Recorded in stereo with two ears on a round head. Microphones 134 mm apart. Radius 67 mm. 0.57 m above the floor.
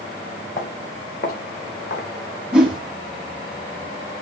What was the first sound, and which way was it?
Footsteps, 60° left (ahead or behind).